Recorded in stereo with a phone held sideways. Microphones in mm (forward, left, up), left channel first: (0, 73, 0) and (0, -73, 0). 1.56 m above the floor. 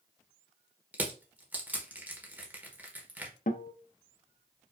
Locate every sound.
0.9 s crushing: 10° right (ahead or behind), 0.9 m
3.5 s a guitar: 70° left (ahead or behind), 0.5 m